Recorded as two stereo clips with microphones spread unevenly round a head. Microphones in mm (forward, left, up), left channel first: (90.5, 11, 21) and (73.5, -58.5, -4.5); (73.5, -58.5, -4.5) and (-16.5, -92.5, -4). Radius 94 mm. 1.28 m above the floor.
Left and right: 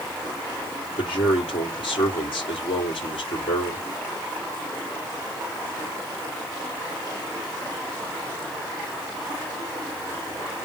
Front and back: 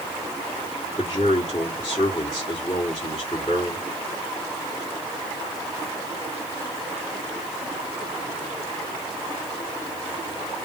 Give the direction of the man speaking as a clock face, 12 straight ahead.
9 o'clock.